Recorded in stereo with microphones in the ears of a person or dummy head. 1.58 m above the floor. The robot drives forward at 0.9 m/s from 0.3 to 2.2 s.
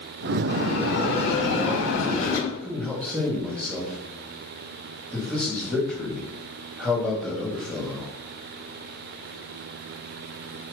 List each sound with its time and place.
0.5 s a bell: 60° left (ahead or behind), 4.5 m; by 2.4 s 75° left (ahead or behind), 4 m
2.5 s a man speaking: 10° left (ahead or behind), 3 m